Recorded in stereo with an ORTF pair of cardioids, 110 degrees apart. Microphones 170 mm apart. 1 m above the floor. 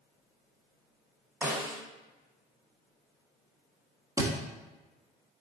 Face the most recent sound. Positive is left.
turn(degrees=-20)